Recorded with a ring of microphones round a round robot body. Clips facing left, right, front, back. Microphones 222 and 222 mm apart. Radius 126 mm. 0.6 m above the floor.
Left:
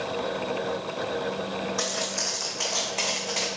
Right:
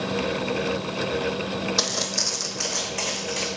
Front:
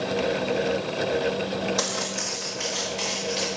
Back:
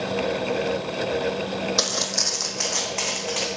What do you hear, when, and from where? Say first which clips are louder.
1.8 s footsteps: right 2 dB, back 1 dB; 125° right, 1.4 m; by 3.5 s 175° right, 3 m